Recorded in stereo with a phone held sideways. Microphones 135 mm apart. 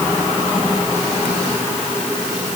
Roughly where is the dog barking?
I don't hear a dog barking.